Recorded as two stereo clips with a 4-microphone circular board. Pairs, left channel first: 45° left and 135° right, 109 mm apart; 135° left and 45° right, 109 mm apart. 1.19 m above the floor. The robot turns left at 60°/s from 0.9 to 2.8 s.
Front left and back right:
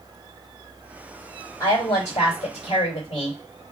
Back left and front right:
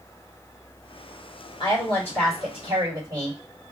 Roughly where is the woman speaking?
Left.